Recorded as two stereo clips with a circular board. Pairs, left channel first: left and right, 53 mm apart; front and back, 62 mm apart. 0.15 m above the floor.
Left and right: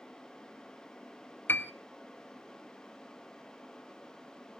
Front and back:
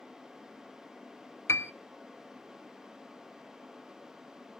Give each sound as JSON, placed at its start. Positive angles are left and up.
{"t": 1.5, "sound": "a piano", "azimuth_deg": 40, "distance_m": 0.6}